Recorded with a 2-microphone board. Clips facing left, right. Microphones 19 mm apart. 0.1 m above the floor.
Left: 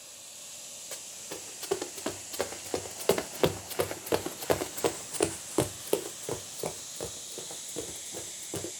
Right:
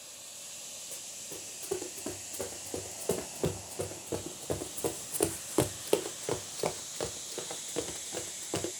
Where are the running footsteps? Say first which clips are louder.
Left 2 dB; 60° left (ahead or behind), 2 m; by 8.7 s 35° right (ahead or behind), 2 m.